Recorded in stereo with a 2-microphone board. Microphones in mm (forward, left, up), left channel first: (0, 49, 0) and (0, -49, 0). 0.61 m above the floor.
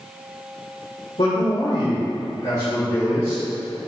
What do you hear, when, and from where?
1.2 s a man speaking: 60° left (ahead or behind), 2 m; by 3.4 s 30° left (ahead or behind), 2.5 m